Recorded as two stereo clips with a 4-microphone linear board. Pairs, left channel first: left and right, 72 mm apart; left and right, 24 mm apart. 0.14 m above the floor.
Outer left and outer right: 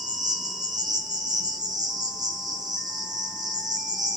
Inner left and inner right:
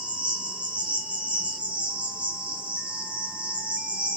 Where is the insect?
65° right (ahead or behind), 0.9 m.